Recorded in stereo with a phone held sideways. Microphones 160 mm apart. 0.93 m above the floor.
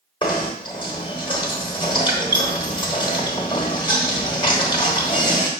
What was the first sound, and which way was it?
Knocking, 30° left (ahead or behind).